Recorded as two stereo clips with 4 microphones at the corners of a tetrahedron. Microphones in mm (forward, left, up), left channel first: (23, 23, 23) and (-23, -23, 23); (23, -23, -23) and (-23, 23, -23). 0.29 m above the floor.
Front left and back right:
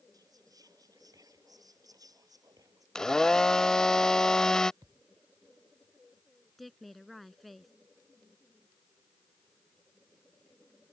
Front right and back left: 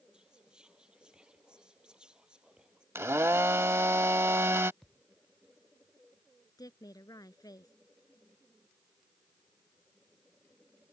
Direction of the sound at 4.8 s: 130° right.